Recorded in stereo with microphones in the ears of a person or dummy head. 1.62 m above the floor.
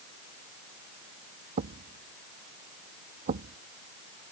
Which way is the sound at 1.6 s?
40° right (ahead or behind).